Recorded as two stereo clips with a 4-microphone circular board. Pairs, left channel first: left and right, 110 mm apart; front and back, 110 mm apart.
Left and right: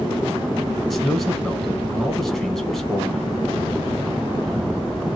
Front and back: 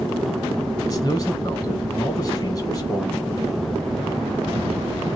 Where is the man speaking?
5° left, 1.2 m.